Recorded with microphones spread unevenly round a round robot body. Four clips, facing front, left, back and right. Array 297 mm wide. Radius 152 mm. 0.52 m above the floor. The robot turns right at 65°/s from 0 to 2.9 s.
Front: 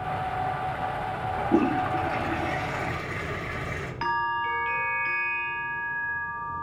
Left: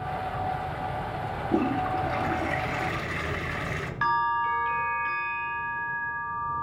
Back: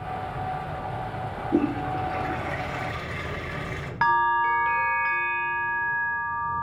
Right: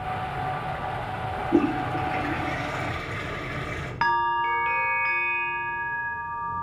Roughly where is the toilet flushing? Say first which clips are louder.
Right 3 dB, front 1 dB; ahead.